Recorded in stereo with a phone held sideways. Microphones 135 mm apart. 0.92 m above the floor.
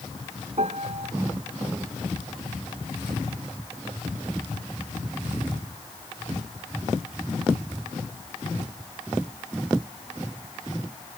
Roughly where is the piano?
Right.